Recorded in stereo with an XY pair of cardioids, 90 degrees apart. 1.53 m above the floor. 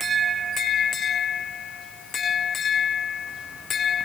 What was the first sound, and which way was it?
Only background noise.